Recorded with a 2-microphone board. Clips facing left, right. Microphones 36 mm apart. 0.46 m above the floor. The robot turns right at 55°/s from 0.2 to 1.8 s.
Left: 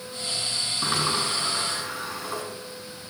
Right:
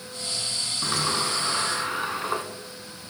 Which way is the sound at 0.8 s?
165° left.